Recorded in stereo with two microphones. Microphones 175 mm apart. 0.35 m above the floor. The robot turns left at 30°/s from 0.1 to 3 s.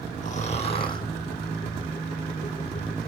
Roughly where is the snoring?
Left.